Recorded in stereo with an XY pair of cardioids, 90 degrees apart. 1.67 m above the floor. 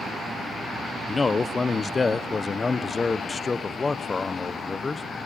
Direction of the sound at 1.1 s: 30° left.